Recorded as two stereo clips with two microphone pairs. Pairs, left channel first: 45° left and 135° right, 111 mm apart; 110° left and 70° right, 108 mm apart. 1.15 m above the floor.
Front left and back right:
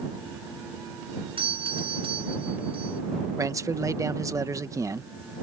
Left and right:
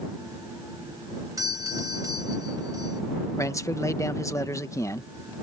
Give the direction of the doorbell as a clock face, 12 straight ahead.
4 o'clock.